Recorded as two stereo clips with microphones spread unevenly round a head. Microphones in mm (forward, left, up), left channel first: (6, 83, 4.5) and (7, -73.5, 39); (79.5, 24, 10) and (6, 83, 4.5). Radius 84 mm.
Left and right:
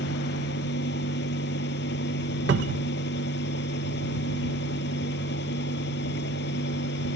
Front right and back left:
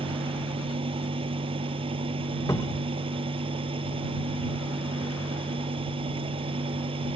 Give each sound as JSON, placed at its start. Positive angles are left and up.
{"t": 0.0, "sound": "a fan", "azimuth_deg": 115}
{"t": 2.5, "sound": "a cupboard door", "azimuth_deg": -110}